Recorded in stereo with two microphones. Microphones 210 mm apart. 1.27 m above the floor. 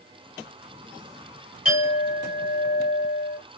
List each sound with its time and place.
1.6 s a clink: 75° left (ahead or behind), 1.7 m